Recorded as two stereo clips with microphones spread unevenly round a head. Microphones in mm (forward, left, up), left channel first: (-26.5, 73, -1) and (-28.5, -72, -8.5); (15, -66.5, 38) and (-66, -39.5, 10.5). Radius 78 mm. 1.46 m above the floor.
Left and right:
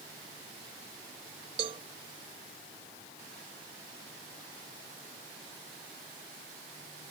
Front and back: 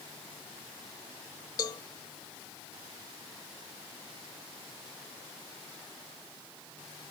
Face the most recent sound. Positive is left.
turn(degrees=-35)